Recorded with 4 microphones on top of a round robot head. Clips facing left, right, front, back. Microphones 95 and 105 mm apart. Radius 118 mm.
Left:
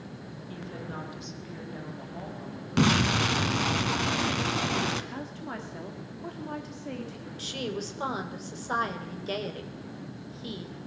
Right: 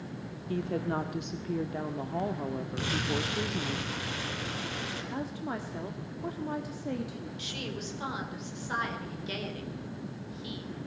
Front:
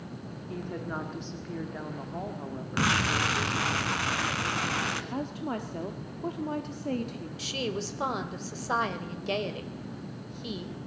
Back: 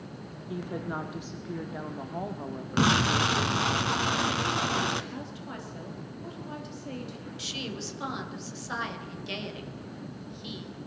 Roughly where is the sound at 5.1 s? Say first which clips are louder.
Right 2 dB, front 6 dB; ahead.